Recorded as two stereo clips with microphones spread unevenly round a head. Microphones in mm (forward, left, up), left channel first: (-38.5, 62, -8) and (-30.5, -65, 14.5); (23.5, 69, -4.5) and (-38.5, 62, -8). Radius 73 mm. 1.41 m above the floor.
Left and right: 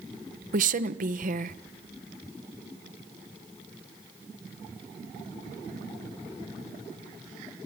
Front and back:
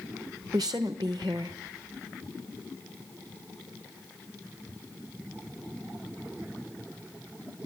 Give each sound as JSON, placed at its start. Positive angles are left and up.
{"t": 0.5, "sound": "a woman speaking", "azimuth_deg": -105, "distance_m": 1.1}